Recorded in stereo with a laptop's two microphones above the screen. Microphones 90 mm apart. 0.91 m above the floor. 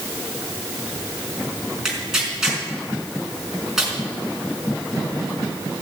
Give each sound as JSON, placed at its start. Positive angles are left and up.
{"t": 1.9, "sound": "tearing paper", "side_deg": -5, "distance_m": 4.5}